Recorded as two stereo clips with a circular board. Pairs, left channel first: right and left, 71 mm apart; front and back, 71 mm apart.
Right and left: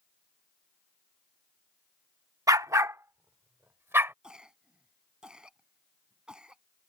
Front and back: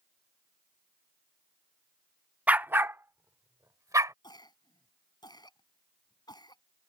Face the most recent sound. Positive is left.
turn(degrees=10)